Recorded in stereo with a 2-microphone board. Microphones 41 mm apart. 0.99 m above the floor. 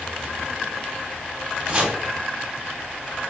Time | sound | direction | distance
1.7 | chopping | 20° right (ahead or behind) | 0.9 m